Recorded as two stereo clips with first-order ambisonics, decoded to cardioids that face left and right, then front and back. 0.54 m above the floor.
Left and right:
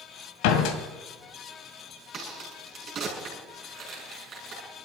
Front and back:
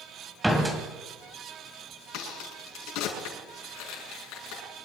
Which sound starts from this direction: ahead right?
A crack, at 2.1 s.